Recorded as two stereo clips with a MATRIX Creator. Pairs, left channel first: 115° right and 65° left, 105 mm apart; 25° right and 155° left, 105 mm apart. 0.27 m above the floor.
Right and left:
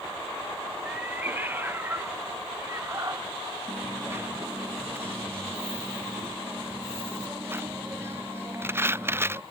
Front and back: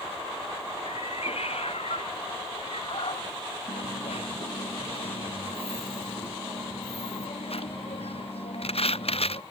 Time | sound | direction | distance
0.8 | a cat meowing | 5° right | ?
3.7 | a dropped coin | straight ahead | ?